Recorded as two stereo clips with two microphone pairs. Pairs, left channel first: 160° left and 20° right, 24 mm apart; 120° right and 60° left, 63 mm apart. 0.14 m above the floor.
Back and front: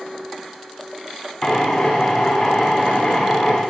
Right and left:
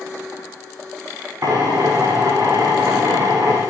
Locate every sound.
1.4 s a drill: 95° left, 9.5 m